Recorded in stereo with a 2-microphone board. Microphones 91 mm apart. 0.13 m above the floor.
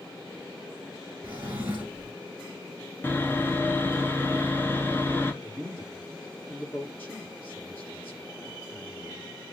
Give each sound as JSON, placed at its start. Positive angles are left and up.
{"t": 1.2, "sound": "a drawer", "side_deg": -20, "distance_m": 1.4}
{"t": 3.0, "sound": "sawing", "side_deg": 25, "distance_m": 1.0}
{"t": 5.4, "sound": "a man speaking", "side_deg": 20, "distance_m": 1.4}